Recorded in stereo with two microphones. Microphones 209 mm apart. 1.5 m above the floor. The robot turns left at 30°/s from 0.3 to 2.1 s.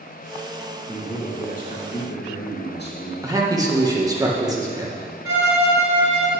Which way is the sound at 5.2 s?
70° right (ahead or behind).